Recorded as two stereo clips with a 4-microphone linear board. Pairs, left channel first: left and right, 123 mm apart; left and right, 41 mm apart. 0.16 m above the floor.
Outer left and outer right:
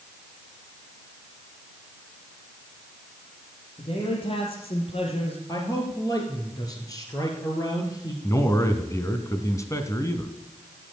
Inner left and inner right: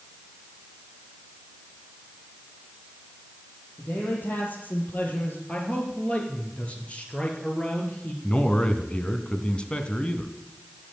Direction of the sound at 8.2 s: 25° left (ahead or behind).